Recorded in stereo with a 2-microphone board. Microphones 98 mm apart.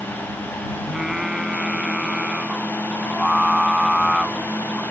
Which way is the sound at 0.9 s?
5° right (ahead or behind).